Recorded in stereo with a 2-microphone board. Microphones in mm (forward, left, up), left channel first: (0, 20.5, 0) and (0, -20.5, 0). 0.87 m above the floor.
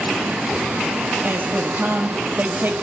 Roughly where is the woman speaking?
Right.